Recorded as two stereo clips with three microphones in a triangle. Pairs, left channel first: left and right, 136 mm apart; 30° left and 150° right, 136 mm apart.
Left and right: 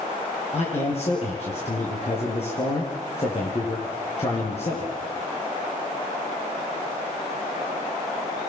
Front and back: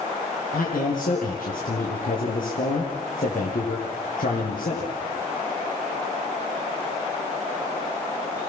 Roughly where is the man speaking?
Ahead left.